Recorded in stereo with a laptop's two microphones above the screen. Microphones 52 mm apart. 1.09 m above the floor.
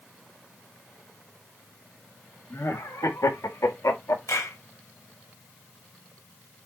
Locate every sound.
2.5 s laughter: 60° left (ahead or behind), 2.5 m; by 4.2 s 65° left (ahead or behind), 2.5 m
4.3 s a clap: 75° left (ahead or behind), 4.5 m